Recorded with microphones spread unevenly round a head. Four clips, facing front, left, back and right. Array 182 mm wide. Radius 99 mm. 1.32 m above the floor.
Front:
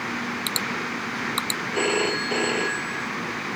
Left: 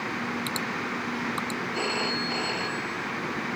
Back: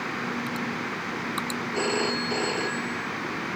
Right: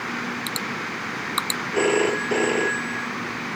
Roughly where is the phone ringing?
Right.